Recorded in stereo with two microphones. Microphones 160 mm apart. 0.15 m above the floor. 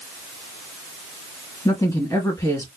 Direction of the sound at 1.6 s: 20° left (ahead or behind).